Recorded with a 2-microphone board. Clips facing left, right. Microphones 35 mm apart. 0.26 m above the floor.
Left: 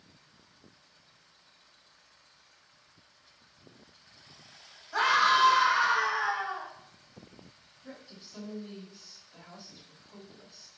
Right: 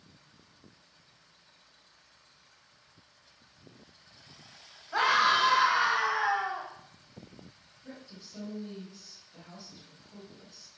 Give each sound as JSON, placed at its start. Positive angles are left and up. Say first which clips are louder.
{"t": 4.9, "sound": "a scream", "louder": "left 1 dB", "side_deg": -30, "distance_m": 1.8}
{"t": 7.8, "sound": "a woman speaking", "louder": "even", "side_deg": 10, "distance_m": 1.6}